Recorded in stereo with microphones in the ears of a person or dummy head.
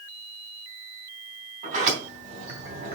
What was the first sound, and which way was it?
A sliding door, 45° right (ahead or behind).